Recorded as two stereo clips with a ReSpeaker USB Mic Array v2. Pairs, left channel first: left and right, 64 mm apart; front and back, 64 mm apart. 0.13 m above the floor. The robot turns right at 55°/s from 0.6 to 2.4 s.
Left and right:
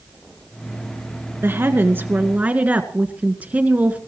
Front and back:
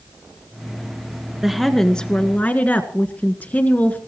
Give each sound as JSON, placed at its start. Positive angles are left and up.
{"t": 1.4, "sound": "a woman speaking", "azimuth_deg": -100, "distance_m": 1.9}